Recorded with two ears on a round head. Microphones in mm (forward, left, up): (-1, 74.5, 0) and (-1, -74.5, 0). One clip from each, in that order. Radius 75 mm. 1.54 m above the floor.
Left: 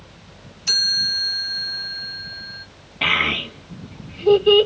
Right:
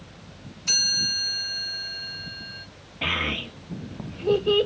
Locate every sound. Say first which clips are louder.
0.7 s a chime: left 4 dB; 35° left (ahead or behind), 1.0 m
3.0 s a child speaking: left 7 dB; 55° left (ahead or behind), 1.3 m